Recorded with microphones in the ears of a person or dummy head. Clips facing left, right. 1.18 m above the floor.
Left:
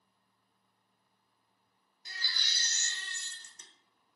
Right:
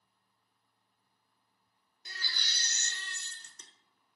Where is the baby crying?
65° right (ahead or behind), 0.6 m.